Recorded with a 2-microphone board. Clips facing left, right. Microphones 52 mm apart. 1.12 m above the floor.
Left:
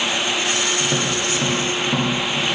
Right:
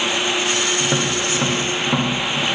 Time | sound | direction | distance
0.8 | tapping | 20° right (ahead or behind) | 1.1 m